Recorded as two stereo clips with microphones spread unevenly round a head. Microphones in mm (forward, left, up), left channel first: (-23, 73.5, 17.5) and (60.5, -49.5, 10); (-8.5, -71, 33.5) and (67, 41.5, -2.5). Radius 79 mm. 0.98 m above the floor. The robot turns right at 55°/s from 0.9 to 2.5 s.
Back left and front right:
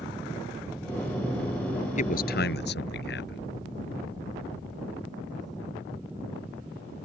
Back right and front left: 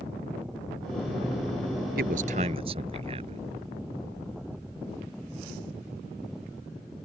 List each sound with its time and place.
2.0 s a man speaking: 85° left; by 3.4 s 115° left